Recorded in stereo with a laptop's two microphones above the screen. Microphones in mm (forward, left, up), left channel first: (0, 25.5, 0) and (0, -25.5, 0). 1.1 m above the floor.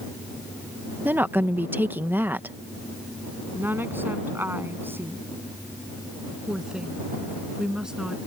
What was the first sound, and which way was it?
A woman speaking, 40° right (ahead or behind).